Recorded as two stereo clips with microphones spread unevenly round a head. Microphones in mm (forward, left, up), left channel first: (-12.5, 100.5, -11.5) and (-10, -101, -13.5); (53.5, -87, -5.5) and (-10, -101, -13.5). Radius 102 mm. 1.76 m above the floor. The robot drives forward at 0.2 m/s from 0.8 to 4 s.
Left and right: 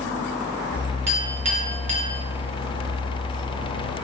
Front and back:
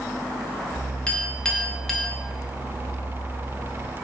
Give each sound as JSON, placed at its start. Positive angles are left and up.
{"t": 1.1, "sound": "a clink", "azimuth_deg": -45, "distance_m": 0.8}